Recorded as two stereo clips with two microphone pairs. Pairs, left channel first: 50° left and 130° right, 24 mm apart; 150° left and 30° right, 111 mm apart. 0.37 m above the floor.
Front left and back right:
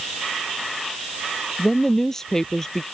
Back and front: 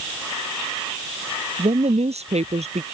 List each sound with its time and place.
1.6 s a woman speaking: 25° right